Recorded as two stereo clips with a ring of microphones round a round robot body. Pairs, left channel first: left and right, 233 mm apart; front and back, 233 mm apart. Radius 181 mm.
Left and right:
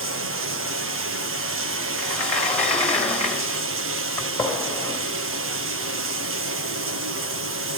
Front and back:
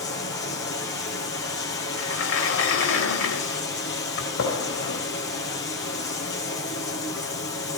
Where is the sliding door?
5° left, 4.5 m.